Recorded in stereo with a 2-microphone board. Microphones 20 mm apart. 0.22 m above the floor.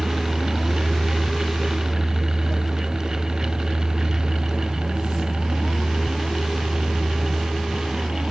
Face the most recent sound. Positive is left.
turn(degrees=-60)  # may be behind; listen again after turning